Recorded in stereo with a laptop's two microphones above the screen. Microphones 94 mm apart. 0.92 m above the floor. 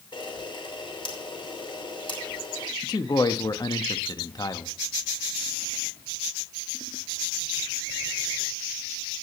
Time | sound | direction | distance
0.1 | a camera shutter | 55° left (ahead or behind) | 2.5 m
2.8 | a man speaking | 45° left (ahead or behind) | 1.0 m